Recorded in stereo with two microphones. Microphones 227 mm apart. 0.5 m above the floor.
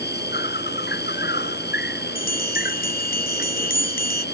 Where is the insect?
50° left (ahead or behind).